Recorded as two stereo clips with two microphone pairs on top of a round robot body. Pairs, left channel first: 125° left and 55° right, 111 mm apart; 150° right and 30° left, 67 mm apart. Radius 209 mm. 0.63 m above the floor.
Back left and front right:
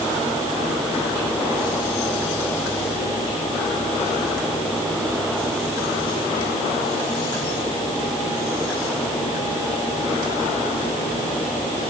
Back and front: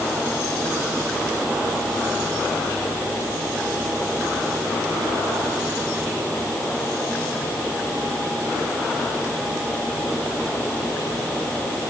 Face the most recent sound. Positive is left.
No sound to turn to.